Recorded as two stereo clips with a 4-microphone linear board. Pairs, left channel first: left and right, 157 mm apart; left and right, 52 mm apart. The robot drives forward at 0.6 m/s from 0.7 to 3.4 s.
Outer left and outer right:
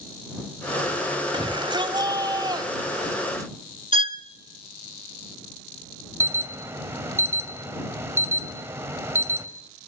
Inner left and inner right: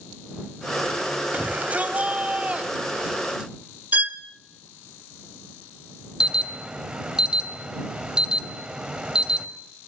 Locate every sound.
1.3 s a shout: 30° right (ahead or behind), 1.8 m; by 3.5 s 20° right (ahead or behind), 2.5 m
3.9 s a violin: 35° right (ahead or behind), 0.8 m
6.2 s an alarm: 15° right (ahead or behind), 1.7 m